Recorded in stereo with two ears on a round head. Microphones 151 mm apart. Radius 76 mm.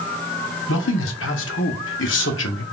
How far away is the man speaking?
About 0.8 m.